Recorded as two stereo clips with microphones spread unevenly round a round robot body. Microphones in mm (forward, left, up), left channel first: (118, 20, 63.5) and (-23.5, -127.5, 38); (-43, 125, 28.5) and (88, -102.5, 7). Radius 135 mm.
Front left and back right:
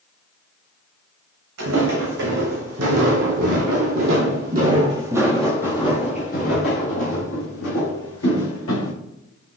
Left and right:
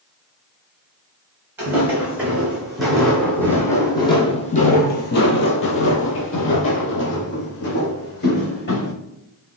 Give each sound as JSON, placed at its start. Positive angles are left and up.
{"t": 1.6, "sound": "footsteps", "azimuth_deg": -145, "distance_m": 2.0}